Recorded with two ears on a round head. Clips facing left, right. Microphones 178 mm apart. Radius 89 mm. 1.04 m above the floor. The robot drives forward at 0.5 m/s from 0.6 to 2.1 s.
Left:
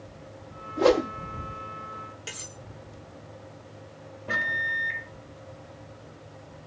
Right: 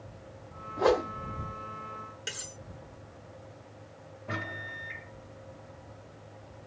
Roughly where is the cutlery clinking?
Centre.